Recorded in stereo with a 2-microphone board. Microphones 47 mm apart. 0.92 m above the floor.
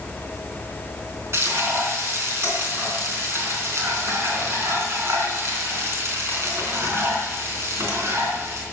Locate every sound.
1.3 s frying: 60° right (ahead or behind), 4 m